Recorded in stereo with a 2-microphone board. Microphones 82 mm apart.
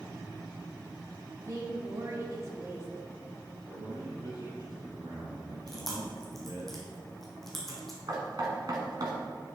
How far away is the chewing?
About 2 m.